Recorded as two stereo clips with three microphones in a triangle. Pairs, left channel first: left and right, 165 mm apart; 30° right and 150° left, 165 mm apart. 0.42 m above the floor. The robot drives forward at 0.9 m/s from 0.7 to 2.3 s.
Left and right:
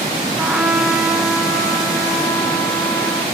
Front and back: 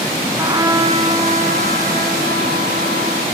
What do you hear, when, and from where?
0.4 s a trumpet: 170° right, 0.5 m; by 3.2 s straight behind, 1.8 m